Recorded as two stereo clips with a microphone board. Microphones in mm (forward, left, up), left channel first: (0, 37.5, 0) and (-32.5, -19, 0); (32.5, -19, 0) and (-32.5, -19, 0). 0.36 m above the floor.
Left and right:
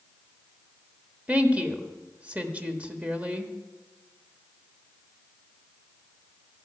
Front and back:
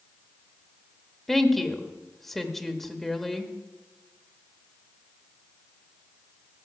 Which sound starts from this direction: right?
A woman speaking, at 1.3 s.